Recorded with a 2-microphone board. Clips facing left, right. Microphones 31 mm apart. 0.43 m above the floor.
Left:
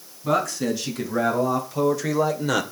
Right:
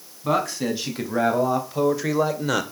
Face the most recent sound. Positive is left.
turn(degrees=0)  # may be behind; listen again after turning